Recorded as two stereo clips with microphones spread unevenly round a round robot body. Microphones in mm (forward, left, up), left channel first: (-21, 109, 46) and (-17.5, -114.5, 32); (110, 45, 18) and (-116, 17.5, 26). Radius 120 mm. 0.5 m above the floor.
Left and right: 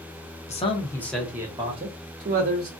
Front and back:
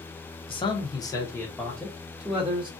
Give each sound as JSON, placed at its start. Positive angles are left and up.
{"t": 0.5, "sound": "a man speaking", "azimuth_deg": 50, "distance_m": 0.8}